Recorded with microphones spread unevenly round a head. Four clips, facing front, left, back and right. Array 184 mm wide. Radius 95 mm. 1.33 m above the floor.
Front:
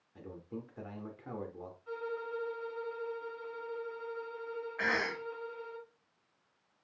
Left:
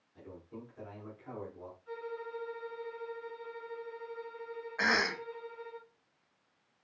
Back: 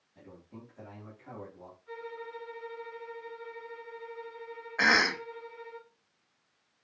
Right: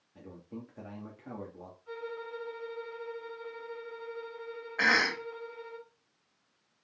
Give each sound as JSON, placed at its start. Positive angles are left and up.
{"t": 0.1, "sound": "a man speaking", "azimuth_deg": -40, "distance_m": 1.7}
{"t": 1.9, "sound": "a violin", "azimuth_deg": -25, "distance_m": 2.5}
{"t": 4.8, "sound": "a cough", "azimuth_deg": -170, "distance_m": 0.7}